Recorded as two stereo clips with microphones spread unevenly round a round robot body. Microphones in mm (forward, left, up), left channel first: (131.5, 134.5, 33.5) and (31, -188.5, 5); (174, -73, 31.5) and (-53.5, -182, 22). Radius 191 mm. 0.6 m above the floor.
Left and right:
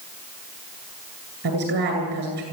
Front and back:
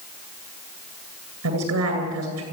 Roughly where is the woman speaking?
Behind.